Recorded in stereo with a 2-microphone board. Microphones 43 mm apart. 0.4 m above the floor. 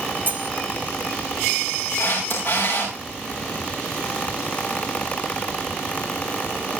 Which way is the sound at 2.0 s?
85° left.